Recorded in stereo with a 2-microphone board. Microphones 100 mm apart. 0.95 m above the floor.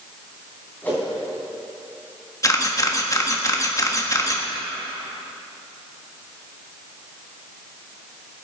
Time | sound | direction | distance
0.8 | a whoosh | 20° left (ahead or behind) | 4.5 m
2.4 | a camera shutter | 30° left (ahead or behind) | 1.4 m